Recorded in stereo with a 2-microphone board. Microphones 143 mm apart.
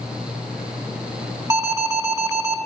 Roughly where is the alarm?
Right.